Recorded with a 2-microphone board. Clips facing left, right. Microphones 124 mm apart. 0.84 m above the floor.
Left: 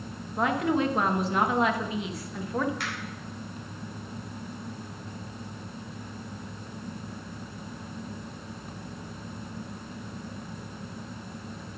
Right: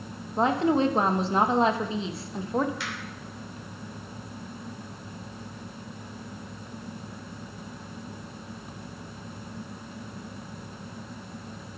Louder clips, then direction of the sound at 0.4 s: Right 3 dB; 30° right (ahead or behind).